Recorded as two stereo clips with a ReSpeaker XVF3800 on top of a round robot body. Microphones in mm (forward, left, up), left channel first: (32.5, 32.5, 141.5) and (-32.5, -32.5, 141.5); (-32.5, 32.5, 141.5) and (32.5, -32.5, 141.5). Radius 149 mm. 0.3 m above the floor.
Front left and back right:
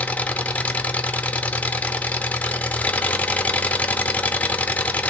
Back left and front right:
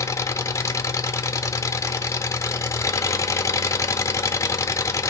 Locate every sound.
0.0 s an engine running: 110° left, 0.7 m